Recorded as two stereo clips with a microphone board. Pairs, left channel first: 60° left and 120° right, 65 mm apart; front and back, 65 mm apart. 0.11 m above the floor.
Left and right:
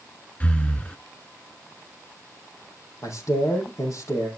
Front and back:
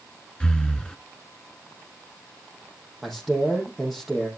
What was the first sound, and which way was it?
Breathing, 50° left.